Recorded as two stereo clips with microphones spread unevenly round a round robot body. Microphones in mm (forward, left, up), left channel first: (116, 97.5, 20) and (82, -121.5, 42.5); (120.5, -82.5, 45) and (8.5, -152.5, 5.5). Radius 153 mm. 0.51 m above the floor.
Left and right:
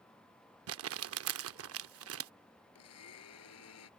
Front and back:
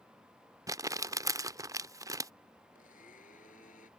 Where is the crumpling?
90° right.